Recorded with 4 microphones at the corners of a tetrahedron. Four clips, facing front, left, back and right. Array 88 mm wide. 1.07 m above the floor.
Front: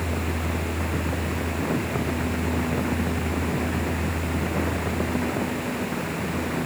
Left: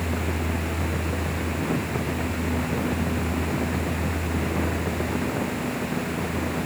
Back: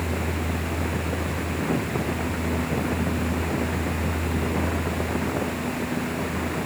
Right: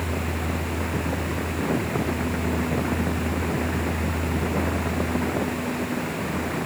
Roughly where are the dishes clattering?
I don't hear dishes clattering.